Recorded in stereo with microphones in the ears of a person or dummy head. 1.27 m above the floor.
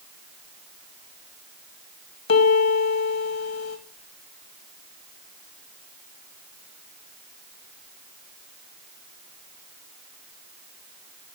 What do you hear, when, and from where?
2.3 s a piano: 70° left (ahead or behind), 2.5 m